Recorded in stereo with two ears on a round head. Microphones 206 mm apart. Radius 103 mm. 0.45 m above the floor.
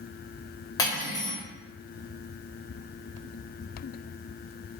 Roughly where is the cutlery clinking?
Centre.